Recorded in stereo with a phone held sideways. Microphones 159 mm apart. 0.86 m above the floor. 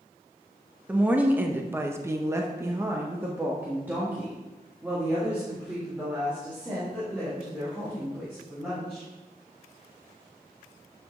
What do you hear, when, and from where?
0.9 s a woman speaking: 10° right (ahead or behind), 1.4 m; by 9.1 s 5° right (ahead or behind), 6 m